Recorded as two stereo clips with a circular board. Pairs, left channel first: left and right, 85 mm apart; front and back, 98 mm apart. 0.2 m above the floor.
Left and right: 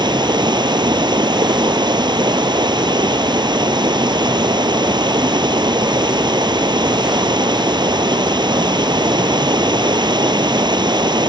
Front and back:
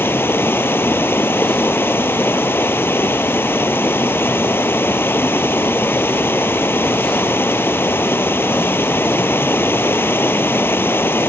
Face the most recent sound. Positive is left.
turn(degrees=-65)